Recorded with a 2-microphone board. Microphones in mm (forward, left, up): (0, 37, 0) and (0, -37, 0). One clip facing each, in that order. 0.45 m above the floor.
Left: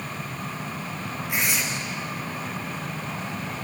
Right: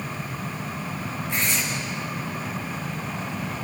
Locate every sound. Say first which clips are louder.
1.3 s tearing paper: even; 15° left (ahead or behind), 5.5 m